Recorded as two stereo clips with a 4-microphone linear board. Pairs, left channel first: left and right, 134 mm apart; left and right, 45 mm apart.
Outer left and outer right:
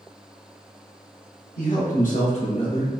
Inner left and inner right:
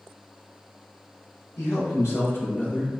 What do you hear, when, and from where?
1.6 s a man speaking: 75° left (ahead or behind), 1.0 m; by 3.0 s 20° left (ahead or behind), 0.9 m